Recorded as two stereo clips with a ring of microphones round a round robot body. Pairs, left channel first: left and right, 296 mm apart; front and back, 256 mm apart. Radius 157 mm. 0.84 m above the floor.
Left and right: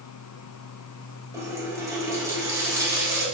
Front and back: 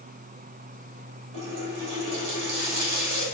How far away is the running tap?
About 2.5 m.